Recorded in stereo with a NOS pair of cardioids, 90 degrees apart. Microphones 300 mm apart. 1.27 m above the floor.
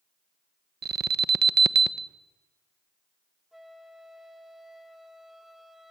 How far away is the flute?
About 1.9 m.